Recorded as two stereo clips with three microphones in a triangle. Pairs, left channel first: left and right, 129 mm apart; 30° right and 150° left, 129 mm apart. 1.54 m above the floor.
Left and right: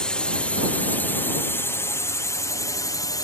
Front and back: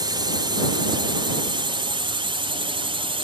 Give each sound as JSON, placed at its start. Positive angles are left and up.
{"t": 0.0, "sound": "a drone", "azimuth_deg": 170}